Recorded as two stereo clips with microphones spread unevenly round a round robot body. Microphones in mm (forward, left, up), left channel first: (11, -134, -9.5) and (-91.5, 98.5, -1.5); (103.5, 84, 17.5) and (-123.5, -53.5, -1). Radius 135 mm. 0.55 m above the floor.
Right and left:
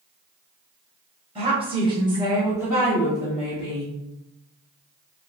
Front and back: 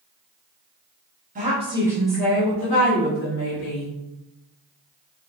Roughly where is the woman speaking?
Behind.